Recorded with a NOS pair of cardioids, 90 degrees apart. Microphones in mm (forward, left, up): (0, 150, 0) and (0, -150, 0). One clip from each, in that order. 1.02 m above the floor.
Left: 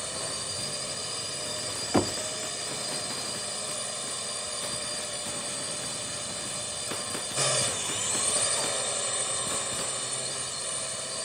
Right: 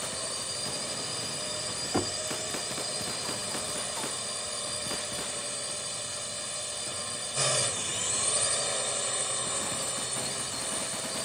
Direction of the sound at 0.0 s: 5° left.